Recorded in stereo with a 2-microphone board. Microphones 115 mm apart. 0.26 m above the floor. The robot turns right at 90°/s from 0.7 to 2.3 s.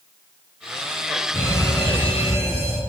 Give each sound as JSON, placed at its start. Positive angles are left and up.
{"t": 1.3, "sound": "an alarm", "azimuth_deg": 15, "distance_m": 4.0}